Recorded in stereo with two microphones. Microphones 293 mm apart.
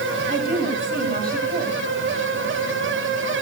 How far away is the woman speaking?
About 7 m.